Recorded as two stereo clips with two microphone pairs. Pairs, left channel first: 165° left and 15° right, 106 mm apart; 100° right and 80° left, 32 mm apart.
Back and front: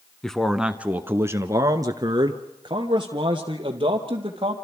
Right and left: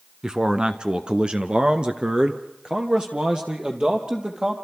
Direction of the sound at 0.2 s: 90° left.